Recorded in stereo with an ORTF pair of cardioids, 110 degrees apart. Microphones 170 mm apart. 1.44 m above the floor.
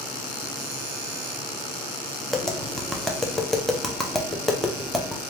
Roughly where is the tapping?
Ahead.